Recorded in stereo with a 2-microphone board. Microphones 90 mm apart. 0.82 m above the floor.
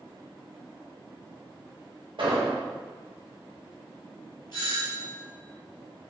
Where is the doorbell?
55° left (ahead or behind), 1.8 m.